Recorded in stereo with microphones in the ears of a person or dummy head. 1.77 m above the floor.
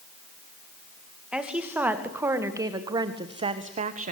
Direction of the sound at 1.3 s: 15° right (ahead or behind).